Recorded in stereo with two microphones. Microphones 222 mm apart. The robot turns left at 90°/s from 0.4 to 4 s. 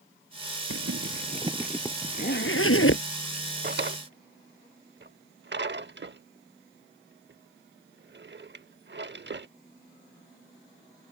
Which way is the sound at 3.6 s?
50° right (ahead or behind).